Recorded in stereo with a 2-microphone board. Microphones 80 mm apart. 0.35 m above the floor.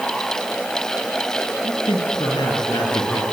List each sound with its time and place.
1.6 s a man speaking: 70° left (ahead or behind), 7 m; by 3.2 s 75° left (ahead or behind), 7 m